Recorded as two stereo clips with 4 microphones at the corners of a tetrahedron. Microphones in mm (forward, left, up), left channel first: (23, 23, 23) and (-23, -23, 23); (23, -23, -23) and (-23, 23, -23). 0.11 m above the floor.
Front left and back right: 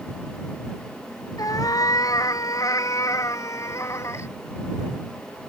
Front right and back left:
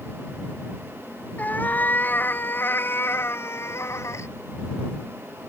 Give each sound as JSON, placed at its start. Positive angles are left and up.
{"t": 1.4, "sound": "a cat meowing", "azimuth_deg": 20}